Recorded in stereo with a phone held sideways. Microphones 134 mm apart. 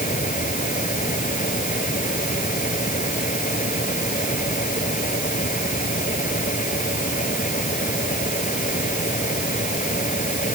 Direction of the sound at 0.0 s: 75° left (ahead or behind).